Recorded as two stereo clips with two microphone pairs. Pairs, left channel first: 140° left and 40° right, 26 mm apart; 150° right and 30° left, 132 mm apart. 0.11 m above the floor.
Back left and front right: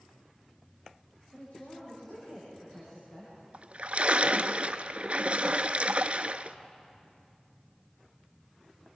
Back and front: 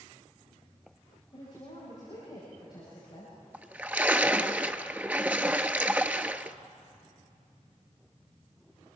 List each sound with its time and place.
1.3 s a woman speaking: 155° left, 9 m
3.5 s a splash: 40° right, 0.6 m